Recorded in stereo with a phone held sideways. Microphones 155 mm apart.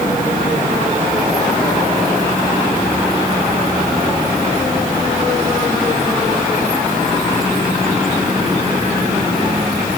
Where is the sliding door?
I don't hear a sliding door.